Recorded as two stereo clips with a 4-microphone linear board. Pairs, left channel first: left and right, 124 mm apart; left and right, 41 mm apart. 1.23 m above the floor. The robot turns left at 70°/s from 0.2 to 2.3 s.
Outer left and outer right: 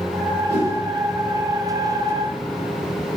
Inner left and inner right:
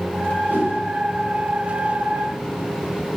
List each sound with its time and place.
0.5 s a whoosh: 65° right (ahead or behind), 1.1 m; by 0.8 s 60° right (ahead or behind), 1.1 m